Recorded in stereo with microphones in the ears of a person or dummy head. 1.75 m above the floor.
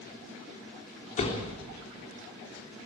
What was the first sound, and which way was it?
A door slam, 40° left (ahead or behind).